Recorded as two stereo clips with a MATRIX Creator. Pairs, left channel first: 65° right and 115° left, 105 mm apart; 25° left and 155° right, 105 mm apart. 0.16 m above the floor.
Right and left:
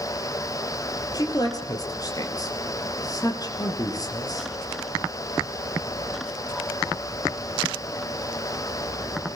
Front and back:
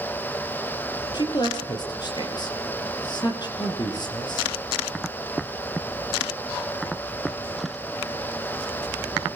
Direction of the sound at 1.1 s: 20° right.